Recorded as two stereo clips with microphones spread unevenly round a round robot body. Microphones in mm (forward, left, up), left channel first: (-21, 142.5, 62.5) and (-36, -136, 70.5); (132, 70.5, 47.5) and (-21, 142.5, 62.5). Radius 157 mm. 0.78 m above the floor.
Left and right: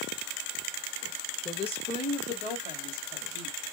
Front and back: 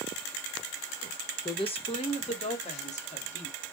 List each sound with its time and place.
1.4 s a woman speaking: 25° left, 1.5 m; by 3.6 s 20° left, 3.5 m